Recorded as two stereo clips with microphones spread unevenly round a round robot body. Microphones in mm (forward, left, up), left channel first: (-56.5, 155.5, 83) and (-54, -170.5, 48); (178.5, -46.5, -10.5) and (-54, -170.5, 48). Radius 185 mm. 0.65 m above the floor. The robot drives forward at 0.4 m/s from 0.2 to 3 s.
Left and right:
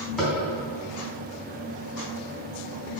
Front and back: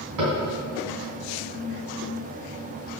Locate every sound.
0.2 s tapping: straight behind, 3.5 m